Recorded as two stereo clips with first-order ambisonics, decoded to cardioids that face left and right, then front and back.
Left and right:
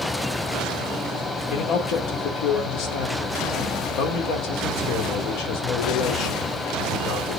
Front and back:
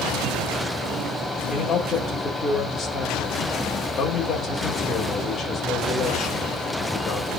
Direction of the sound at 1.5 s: 75° left.